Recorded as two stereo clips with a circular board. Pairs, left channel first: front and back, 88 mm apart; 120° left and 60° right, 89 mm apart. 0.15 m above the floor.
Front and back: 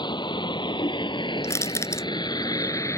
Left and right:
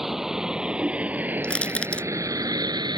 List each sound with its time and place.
0.0 s a vehicle: 25° left; by 3.0 s 50° right
1.4 s crushing: 45° left